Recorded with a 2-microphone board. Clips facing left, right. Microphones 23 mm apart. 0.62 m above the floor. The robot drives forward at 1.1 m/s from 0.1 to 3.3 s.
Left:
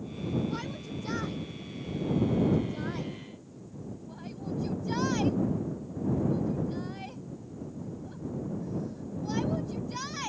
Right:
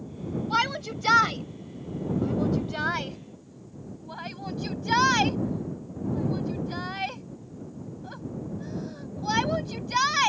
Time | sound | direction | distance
0.5 | a shout | 60° right (ahead or behind) | ?